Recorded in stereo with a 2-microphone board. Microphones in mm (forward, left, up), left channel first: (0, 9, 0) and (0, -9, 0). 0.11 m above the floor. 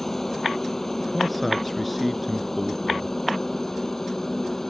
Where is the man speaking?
Centre (ahead or behind).